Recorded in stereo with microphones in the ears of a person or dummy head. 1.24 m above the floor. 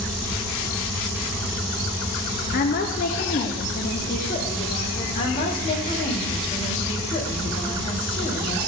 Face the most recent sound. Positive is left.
turn(degrees=30)  # may be behind; listen again after turning